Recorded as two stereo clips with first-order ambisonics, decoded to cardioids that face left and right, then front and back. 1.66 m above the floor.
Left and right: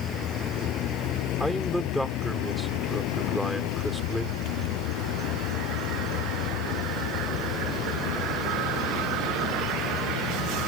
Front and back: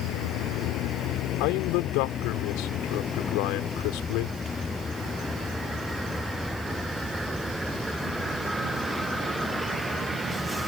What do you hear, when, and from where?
0.0 s a vehicle: 35° left; by 10.7 s 95° left
1.4 s a man speaking: straight ahead